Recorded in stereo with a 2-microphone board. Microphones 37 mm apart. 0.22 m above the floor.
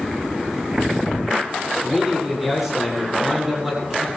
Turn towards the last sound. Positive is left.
turn(degrees=-10)  # may be behind; listen again after turning